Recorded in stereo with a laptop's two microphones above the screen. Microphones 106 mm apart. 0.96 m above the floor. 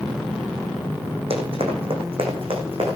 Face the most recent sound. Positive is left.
turn(degrees=-60)  # may be behind; listen again after turning